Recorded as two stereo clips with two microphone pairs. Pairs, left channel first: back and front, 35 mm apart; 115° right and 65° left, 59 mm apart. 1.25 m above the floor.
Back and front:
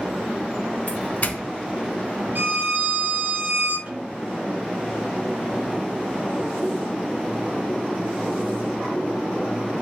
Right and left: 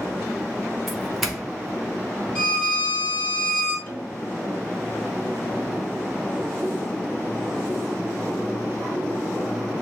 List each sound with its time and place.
0.9 s a doorbell: 150° left, 1.5 m
2.4 s a violin: 35° right, 3.5 m
3.9 s a snare drum: 45° right, 4 m